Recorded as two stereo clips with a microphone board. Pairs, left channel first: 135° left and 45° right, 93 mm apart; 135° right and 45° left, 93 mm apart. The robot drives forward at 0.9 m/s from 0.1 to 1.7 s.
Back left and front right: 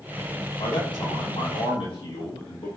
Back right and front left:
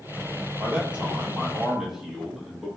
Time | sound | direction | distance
0.6 | a man speaking | 115° left | 3.5 m